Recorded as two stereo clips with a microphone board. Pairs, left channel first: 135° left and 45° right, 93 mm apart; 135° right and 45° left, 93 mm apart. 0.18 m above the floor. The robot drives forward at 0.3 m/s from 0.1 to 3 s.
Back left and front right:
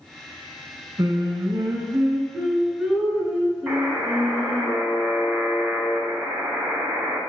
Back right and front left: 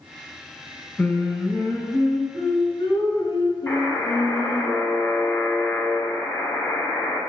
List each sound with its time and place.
1.0 s singing: 70° right, 0.6 m; by 4.7 s 135° right, 0.7 m
3.7 s a buzzer: 115° right, 0.8 m